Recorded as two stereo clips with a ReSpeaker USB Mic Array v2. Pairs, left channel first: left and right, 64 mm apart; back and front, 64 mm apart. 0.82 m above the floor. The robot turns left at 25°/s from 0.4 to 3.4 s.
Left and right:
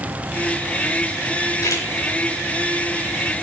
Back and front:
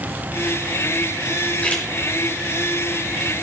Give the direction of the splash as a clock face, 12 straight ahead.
8 o'clock.